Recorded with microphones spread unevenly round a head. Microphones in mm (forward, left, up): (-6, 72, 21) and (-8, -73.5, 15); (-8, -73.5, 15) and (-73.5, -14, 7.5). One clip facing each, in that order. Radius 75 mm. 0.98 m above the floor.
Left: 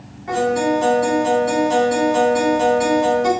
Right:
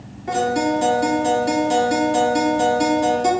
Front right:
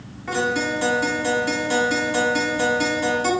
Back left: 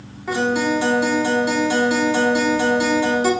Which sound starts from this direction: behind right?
A guitar, at 0.3 s.